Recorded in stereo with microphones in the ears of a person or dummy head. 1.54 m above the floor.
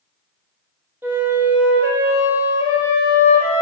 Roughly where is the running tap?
No running tap in this recording.